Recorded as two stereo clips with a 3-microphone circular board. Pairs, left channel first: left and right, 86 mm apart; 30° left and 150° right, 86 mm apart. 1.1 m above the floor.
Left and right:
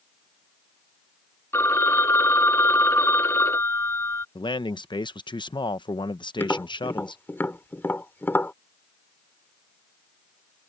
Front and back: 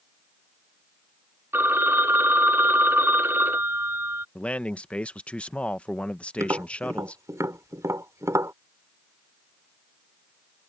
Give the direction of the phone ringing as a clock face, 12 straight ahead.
7 o'clock.